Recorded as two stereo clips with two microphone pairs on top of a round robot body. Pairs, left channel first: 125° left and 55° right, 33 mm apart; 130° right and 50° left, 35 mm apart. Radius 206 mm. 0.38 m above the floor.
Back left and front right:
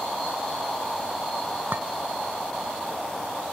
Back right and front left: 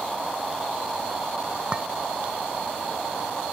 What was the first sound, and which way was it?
A clink, 20° right.